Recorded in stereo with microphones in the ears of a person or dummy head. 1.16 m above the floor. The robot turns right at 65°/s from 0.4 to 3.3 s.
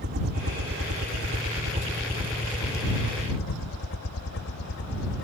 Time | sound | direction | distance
0.0 | a helicopter | 50° right (ahead or behind) | ?